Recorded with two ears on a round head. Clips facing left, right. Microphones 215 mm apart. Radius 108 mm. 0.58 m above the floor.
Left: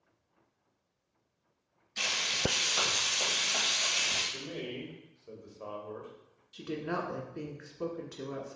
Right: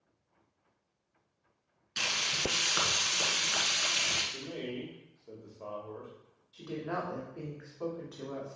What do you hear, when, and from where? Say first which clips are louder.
2.0 s frying: left 2 dB; 75° right (ahead or behind), 1.6 m
4.3 s a man speaking: right 1 dB; 15° left (ahead or behind), 1.4 m
6.5 s a woman speaking: left 2 dB; 35° left (ahead or behind), 1.4 m